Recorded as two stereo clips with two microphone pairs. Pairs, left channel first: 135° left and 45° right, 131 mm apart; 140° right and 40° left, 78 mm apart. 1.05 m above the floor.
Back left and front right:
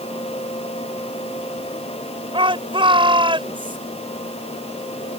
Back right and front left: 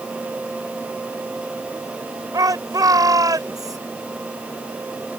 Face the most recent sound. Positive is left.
turn(degrees=0)